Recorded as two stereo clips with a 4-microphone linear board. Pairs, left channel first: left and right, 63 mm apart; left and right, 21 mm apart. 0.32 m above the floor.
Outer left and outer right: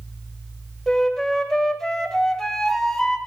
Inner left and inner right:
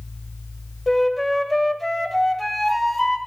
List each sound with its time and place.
0.9 s a flute: 5° left (ahead or behind), 1.1 m